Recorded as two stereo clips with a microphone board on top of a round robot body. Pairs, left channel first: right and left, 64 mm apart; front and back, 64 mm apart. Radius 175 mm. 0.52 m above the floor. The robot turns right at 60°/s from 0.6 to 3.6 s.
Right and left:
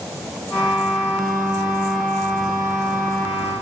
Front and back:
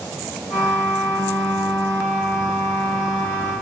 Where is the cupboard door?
I don't hear a cupboard door.